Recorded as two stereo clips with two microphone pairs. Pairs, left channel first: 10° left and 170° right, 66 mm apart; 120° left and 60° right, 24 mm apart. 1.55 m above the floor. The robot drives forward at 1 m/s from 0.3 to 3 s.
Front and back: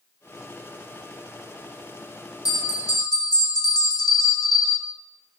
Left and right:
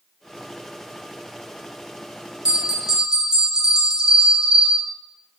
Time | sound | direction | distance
2.5 | a bell | 5° right | 2.5 m